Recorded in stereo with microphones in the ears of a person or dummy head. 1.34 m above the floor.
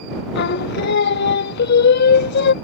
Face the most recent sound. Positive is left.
turn(degrees=60)  # may be behind; listen again after turning